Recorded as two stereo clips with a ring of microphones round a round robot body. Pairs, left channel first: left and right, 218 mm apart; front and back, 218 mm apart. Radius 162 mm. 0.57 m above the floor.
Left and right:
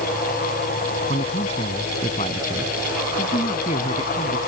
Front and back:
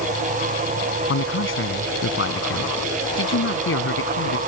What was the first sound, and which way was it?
A man speaking, 20° left.